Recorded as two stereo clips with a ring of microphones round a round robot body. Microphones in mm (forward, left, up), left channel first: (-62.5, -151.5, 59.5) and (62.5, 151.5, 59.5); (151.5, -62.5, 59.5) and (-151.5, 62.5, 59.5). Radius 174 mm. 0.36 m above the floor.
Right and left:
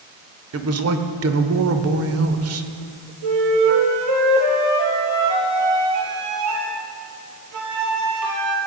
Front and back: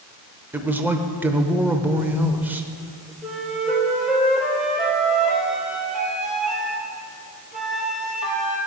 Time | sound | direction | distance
0.5 | a man speaking | 75° left | 1.1 m
3.2 | a flute | 70° left | 2 m